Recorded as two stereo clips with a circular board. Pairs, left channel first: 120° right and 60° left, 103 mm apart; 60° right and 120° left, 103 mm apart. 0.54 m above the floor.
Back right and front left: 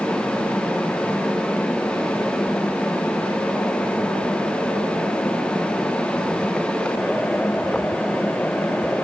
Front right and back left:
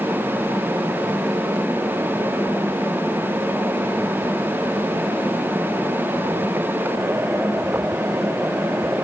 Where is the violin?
I don't hear a violin.